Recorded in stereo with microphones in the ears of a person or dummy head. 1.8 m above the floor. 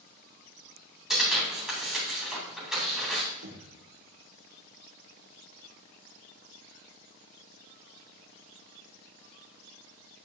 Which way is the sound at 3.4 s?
60° right (ahead or behind).